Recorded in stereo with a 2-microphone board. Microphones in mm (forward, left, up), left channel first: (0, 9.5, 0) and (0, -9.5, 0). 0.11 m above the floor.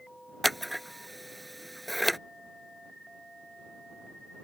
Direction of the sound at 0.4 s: Centre (ahead or behind).